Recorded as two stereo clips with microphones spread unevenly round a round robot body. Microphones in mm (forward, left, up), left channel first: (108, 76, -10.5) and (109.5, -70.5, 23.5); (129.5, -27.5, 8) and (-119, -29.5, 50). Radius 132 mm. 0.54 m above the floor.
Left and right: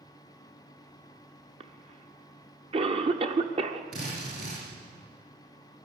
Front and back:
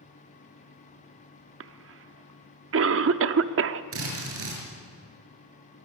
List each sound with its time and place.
1.6 s a cough: 150° right, 0.9 m
3.9 s a drill: 145° right, 7 m